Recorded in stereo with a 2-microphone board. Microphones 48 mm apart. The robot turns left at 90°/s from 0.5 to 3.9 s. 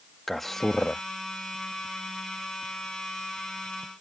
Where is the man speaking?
5° left (ahead or behind); by 1.0 s 20° left (ahead or behind).